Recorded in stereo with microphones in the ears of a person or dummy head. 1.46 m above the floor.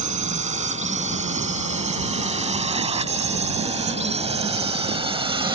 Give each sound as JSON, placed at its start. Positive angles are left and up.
{"t": 0.0, "sound": "a drone", "side_deg": -35}